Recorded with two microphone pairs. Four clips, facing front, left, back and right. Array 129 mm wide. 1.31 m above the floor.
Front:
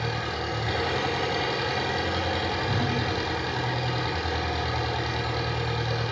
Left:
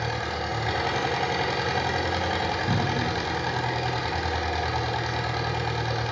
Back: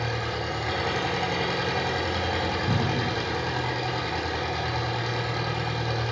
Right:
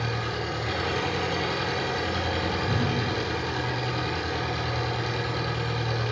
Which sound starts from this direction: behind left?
A cupboard door, at 2.7 s.